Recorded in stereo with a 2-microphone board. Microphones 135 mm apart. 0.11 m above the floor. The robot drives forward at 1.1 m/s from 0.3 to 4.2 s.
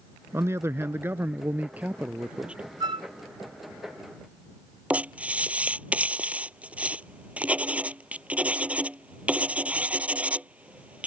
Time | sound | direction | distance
0.3 | a man speaking | 20° right (ahead or behind) | ?
2.8 | a flute | 35° right (ahead or behind) | ?
4.9 | writing | 10° right (ahead or behind) | ?